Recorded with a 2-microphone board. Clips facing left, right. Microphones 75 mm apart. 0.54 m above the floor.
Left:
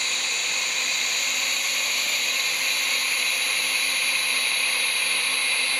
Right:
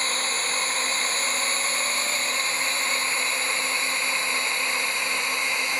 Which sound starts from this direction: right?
A drone, at 0.0 s.